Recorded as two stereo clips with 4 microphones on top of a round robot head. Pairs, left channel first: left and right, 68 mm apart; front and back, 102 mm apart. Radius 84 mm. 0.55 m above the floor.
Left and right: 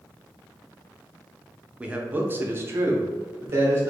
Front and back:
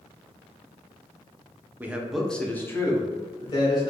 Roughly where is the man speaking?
Behind right.